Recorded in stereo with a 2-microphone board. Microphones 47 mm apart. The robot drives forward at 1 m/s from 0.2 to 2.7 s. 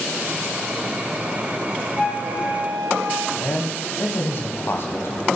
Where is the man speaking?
60° left (ahead or behind), 1.8 m.